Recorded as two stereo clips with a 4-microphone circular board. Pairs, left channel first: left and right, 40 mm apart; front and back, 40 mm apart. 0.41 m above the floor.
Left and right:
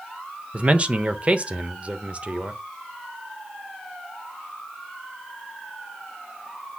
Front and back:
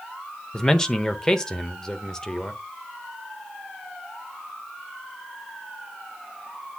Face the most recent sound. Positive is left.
turn(degrees=-65)